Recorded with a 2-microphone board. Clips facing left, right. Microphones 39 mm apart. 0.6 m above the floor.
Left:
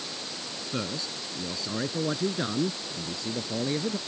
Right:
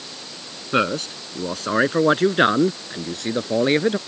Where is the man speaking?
80° right.